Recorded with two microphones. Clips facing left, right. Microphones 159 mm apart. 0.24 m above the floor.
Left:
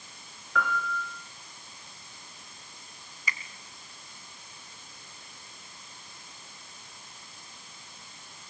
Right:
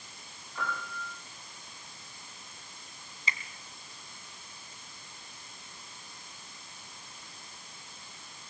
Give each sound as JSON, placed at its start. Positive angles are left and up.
{"t": 0.6, "sound": "a piano", "side_deg": 80, "distance_m": 8.5}
{"t": 3.3, "sound": "a finger snap", "side_deg": -25, "distance_m": 2.0}